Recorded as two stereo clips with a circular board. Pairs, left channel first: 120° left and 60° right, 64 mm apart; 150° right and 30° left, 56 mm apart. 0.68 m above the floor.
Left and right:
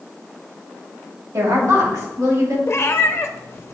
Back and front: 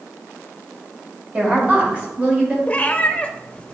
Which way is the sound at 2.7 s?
155° left.